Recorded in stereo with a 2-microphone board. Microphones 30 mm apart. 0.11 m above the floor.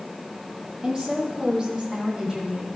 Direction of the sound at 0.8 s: 25° right (ahead or behind).